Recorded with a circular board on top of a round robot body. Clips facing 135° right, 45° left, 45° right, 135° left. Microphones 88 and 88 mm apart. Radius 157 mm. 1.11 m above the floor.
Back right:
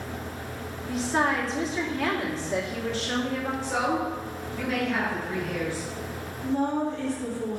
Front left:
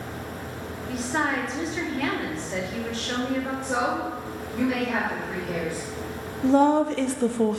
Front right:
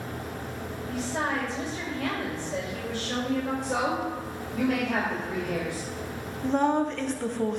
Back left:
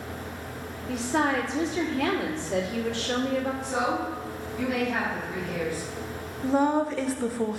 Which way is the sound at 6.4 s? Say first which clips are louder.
Front left 8 dB, back left 1 dB; 50° left.